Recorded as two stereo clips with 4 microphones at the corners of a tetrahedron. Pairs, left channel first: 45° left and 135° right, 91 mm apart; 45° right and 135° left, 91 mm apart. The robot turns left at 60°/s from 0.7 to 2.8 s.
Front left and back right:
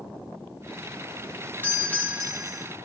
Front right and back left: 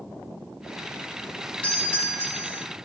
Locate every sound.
1.6 s a doorbell: 10° left, 1.5 m; by 2.6 s 50° right, 1.5 m